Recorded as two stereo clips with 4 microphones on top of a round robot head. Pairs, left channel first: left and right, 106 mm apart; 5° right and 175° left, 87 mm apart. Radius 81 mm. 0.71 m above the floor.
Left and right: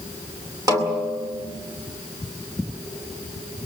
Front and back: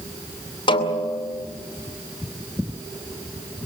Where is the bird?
I don't hear a bird.